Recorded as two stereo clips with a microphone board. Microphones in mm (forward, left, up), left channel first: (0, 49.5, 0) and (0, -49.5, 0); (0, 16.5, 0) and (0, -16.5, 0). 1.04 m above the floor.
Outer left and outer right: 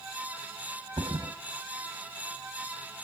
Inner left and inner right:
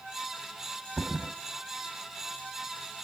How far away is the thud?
About 2 m.